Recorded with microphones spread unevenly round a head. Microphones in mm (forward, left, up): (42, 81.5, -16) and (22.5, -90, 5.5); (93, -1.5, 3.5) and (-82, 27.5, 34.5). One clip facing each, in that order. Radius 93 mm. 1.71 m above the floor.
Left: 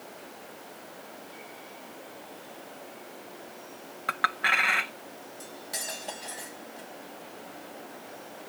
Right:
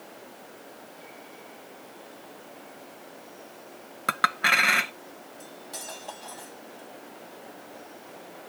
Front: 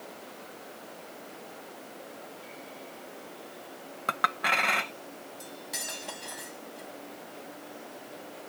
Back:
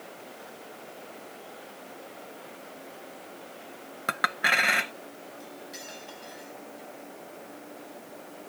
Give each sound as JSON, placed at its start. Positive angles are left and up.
{"t": 4.1, "sound": "a clink", "azimuth_deg": -120}
{"t": 5.4, "sound": "cutlery clinking", "azimuth_deg": 15}